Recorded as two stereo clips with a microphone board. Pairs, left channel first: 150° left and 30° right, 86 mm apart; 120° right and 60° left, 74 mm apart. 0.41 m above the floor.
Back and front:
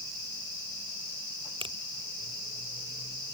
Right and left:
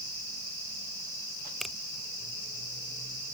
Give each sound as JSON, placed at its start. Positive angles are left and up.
{"t": 1.6, "sound": "a finger snap", "azimuth_deg": -30}